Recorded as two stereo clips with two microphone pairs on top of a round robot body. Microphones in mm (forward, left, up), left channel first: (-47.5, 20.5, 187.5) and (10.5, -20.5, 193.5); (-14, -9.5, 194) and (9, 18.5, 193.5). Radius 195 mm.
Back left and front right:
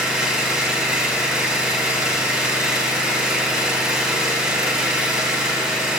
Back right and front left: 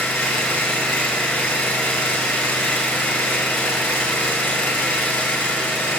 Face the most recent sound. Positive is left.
turn(degrees=-115)